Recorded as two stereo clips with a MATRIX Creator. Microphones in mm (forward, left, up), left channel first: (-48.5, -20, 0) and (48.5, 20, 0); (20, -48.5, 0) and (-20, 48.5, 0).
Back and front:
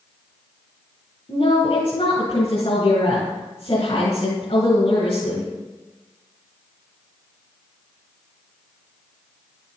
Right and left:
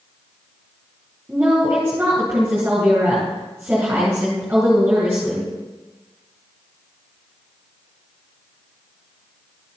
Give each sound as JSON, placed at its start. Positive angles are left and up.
{"t": 1.3, "sound": "a woman speaking", "azimuth_deg": -175, "distance_m": 3.5}